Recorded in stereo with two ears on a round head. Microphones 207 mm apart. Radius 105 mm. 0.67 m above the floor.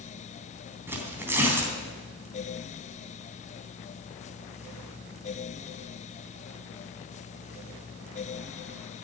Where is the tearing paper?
10° right (ahead or behind), 3 m.